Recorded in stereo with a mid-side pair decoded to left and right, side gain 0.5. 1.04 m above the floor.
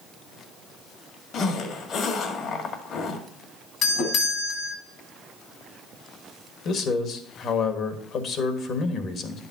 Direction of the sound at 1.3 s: 65° left.